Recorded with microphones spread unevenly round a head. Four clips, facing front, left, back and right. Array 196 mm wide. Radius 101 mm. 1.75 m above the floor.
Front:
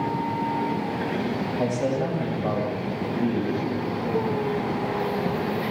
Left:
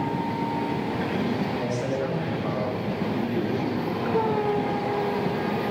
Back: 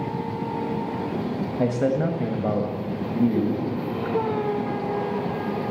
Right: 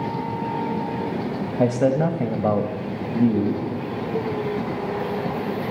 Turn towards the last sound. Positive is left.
turn(degrees=-115)